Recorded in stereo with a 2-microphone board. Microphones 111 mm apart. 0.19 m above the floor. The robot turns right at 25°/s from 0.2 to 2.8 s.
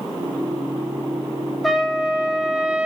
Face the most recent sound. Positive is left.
turn(degrees=-10)  # may be behind; listen again after turning